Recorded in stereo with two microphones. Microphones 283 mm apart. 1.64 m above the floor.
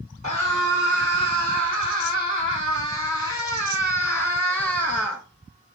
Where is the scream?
80° left, 5.5 m; by 5.2 s 60° left (ahead or behind), 2 m.